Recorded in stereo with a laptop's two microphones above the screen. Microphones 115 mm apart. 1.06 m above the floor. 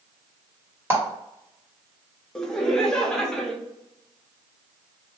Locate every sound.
0.9 s a clap: 20° right (ahead or behind), 1.4 m
2.4 s laughter: 5° left (ahead or behind), 0.9 m